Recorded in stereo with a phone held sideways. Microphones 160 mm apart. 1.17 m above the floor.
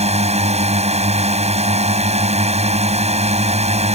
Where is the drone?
40° right (ahead or behind).